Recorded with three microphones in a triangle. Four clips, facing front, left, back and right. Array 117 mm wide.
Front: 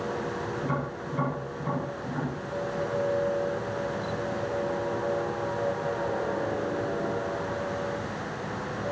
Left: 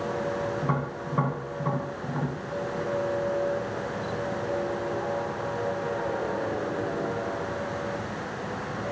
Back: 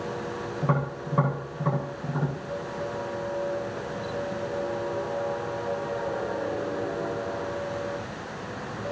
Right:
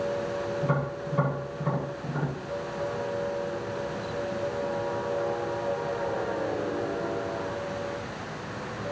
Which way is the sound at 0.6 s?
150° left.